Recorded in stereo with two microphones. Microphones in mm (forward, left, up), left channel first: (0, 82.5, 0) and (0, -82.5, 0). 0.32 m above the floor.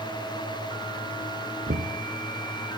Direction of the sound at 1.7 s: 55° right (ahead or behind).